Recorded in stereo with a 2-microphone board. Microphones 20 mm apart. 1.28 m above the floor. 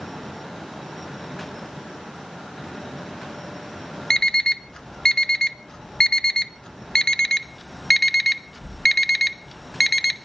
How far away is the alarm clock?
About 0.6 m.